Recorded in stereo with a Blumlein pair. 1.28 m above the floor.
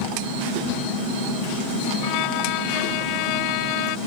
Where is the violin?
40° left.